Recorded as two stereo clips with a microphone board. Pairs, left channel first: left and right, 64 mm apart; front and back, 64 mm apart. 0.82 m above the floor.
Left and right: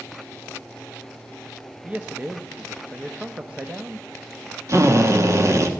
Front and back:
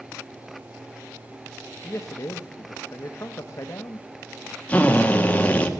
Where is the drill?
65° right, 1.5 m.